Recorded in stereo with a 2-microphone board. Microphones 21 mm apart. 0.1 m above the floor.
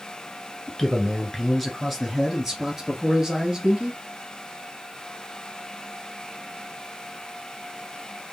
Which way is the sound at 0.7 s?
20° left (ahead or behind).